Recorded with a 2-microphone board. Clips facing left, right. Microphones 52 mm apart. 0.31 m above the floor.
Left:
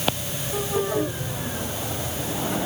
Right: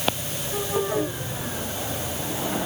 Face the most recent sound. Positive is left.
No sound to turn to.